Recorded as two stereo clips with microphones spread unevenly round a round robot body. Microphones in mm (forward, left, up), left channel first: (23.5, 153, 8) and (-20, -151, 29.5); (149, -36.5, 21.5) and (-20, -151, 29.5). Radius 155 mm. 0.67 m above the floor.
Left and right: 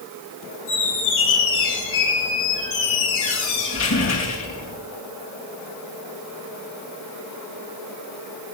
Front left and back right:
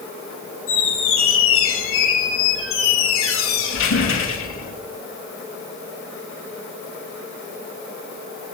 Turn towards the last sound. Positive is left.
turn(degrees=30)